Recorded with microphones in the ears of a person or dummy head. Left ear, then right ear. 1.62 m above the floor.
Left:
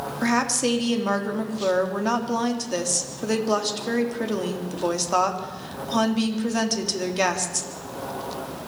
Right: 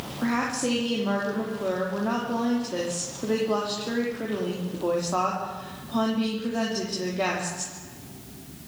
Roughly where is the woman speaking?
Left.